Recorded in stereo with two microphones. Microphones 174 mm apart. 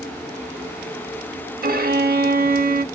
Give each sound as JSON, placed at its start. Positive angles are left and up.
{"t": 1.6, "sound": "a violin", "side_deg": -60, "distance_m": 0.6}